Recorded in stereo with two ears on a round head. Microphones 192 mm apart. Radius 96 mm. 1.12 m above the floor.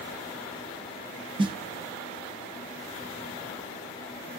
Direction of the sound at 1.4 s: 25° right (ahead or behind).